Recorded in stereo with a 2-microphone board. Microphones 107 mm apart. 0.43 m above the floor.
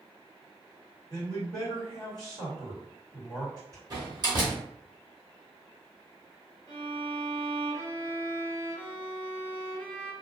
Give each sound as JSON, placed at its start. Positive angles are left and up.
{"t": 1.1, "sound": "a man speaking", "side_deg": -35, "distance_m": 1.8}
{"t": 3.9, "sound": "a door slam", "side_deg": -40, "distance_m": 1.1}
{"t": 6.7, "sound": "a violin", "side_deg": 15, "distance_m": 1.1}